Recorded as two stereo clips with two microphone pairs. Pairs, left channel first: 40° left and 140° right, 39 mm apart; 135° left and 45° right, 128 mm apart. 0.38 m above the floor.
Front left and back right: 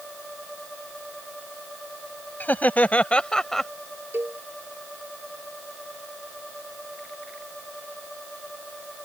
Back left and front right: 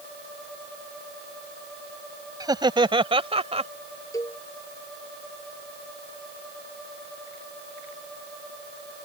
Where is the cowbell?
160° right.